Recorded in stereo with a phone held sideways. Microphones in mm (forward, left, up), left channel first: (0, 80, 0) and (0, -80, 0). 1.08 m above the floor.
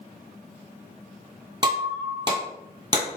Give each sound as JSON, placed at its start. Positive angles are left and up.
{"t": 1.6, "sound": "breaking glass", "side_deg": -25, "distance_m": 1.2}